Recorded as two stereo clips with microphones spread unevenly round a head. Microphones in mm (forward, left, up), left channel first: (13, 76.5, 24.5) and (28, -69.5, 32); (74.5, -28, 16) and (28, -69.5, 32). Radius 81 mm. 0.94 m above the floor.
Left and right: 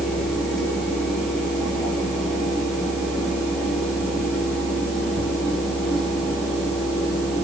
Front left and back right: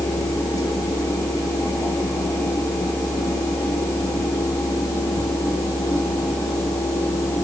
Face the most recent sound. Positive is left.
turn(degrees=5)